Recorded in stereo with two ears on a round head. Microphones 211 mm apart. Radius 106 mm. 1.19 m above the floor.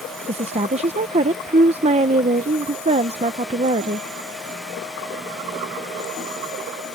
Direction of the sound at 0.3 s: 25° right (ahead or behind).